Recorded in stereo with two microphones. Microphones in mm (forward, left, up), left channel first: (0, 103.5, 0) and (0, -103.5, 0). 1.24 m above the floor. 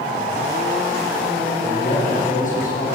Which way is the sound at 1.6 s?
40° left (ahead or behind).